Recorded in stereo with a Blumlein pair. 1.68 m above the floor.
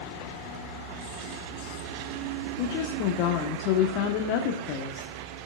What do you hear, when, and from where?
2.6 s a woman speaking: 40° left, 1.3 m